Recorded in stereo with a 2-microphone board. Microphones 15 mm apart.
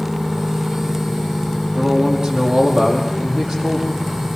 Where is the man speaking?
75° right (ahead or behind), 7.5 m.